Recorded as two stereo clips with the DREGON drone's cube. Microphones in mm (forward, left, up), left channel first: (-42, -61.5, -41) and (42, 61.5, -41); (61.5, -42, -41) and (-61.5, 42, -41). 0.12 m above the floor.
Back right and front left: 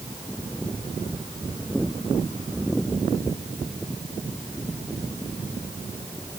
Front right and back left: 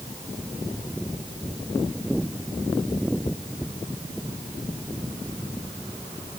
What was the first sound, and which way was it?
Only background noise.